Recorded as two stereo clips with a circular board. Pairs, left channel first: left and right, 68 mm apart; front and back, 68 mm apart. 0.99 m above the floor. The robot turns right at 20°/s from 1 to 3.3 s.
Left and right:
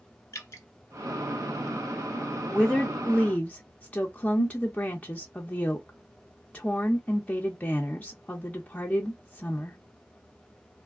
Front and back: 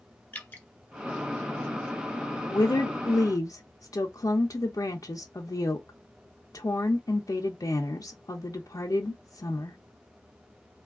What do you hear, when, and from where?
0.3 s dripping: 60° left, 0.8 m
2.5 s a woman speaking: 10° left, 0.5 m; by 9.8 s 25° left, 0.5 m